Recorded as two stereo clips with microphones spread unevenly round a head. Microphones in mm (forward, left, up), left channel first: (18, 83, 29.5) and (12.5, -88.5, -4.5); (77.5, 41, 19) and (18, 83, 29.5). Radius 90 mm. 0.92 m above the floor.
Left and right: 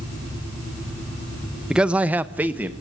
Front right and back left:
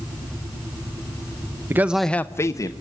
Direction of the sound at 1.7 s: 160° right.